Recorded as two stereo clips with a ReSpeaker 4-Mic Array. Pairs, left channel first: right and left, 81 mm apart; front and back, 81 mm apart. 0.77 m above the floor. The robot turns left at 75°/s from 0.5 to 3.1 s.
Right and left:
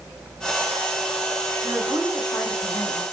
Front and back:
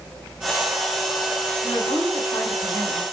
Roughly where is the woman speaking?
Ahead left.